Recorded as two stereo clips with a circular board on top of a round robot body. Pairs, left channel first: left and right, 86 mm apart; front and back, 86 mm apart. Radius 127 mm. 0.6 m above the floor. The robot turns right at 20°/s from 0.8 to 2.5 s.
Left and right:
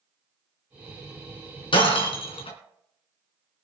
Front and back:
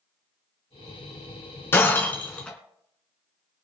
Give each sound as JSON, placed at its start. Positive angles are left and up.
{"t": 1.7, "sound": "breaking glass", "azimuth_deg": 65, "distance_m": 3.0}